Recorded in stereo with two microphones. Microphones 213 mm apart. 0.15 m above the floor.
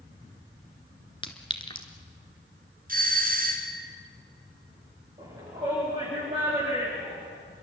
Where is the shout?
30° right (ahead or behind), 5.5 m.